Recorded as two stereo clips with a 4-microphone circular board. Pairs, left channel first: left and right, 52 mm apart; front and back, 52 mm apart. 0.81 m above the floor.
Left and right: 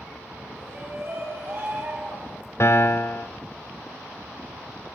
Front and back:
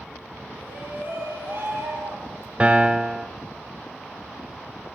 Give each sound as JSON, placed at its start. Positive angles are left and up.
{"t": 0.6, "sound": "a shout", "azimuth_deg": -130, "distance_m": 5.0}
{"t": 2.6, "sound": "a piano", "azimuth_deg": 115, "distance_m": 1.1}